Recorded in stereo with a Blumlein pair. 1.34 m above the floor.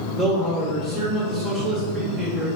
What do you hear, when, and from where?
0.2 s a man speaking: 20° right, 0.9 m